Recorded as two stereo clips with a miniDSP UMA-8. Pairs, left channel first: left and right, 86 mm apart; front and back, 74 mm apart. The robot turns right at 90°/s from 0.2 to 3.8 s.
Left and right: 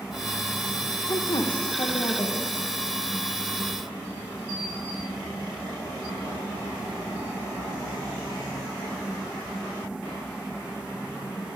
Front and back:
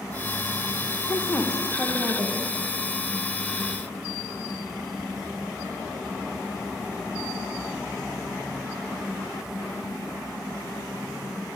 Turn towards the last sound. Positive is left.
turn(degrees=-75)